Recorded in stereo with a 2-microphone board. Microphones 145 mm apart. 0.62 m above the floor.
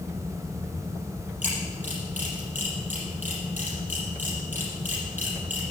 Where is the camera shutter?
70° right (ahead or behind), 5.5 m.